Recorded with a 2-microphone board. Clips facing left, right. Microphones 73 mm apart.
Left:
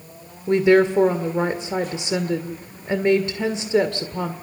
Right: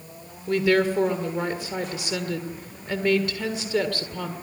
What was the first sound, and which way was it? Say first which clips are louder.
A woman speaking: left 5 dB; 25° left (ahead or behind).